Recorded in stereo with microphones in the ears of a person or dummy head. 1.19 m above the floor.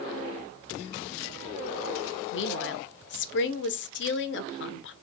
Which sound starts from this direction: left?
A woman speaking, at 2.3 s.